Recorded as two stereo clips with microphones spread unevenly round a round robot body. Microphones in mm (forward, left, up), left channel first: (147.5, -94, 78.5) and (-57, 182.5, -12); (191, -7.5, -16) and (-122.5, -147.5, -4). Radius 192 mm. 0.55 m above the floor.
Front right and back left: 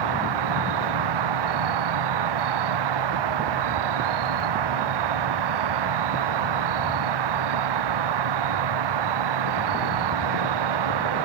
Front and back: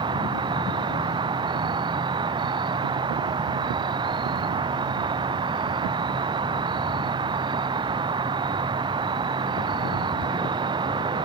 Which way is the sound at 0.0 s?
125° left.